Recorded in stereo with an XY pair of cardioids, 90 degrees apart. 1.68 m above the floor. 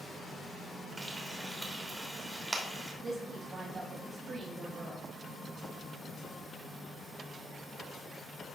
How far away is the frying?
About 3 m.